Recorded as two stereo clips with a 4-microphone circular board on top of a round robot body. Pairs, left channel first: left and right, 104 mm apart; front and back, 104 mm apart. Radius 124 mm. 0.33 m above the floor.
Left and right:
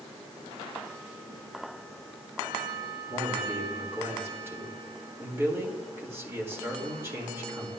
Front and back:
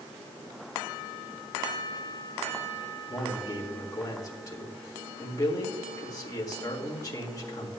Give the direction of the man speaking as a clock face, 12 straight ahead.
1 o'clock.